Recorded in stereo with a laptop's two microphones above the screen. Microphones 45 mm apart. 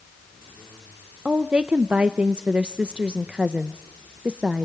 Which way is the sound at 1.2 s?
25° right (ahead or behind).